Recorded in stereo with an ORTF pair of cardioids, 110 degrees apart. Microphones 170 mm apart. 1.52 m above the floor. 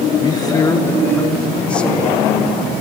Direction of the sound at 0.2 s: 25° left.